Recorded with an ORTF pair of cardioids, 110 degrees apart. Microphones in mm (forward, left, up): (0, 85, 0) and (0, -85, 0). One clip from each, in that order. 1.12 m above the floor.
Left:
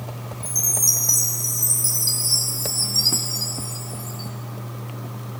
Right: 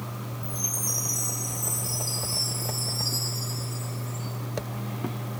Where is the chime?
70° left, 4.5 m.